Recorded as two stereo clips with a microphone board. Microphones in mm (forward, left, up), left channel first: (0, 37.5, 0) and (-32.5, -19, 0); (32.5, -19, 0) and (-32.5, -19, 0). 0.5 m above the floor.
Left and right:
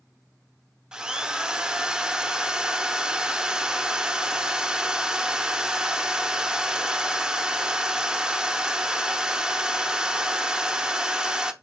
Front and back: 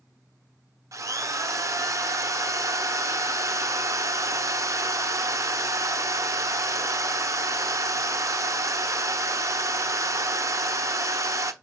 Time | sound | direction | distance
0.9 | a drill | 165° left | 0.7 m